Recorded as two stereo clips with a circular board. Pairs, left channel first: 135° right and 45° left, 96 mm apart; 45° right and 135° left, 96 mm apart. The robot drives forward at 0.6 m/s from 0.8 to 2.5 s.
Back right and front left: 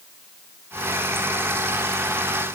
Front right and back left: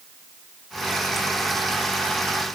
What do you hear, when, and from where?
Only background noise.